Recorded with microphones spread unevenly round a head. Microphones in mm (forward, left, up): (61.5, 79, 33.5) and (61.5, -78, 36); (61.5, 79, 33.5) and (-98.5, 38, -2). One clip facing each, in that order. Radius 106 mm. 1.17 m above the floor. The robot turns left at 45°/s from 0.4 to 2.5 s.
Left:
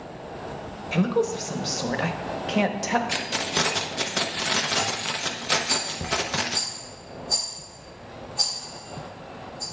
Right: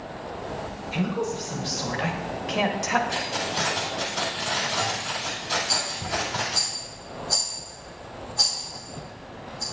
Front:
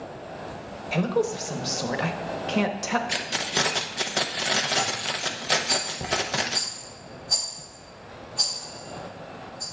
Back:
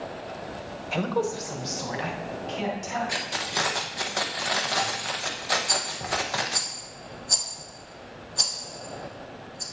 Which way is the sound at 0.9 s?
105° left.